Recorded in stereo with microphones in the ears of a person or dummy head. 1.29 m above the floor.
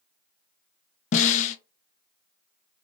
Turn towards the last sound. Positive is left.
turn(degrees=40)  # may be behind; listen again after turning